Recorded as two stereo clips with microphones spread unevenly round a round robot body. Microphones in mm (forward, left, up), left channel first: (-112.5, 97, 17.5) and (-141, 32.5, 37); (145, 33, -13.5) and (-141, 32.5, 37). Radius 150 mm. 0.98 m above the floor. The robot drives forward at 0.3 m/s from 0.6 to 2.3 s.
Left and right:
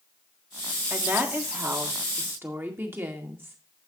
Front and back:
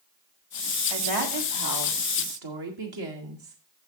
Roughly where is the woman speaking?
Behind.